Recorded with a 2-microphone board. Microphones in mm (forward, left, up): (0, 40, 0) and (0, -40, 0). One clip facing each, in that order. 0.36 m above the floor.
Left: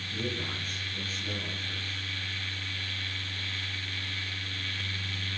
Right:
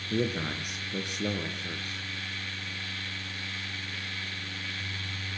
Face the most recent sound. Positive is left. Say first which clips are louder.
# right 6 dB
turn(degrees=-75)  # may be behind; listen again after turning